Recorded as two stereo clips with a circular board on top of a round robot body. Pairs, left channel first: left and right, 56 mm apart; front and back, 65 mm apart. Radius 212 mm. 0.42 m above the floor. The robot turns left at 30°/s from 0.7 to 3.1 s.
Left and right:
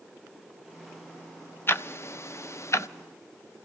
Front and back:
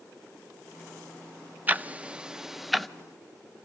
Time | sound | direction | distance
1.7 | ticking | 125° left | 0.6 m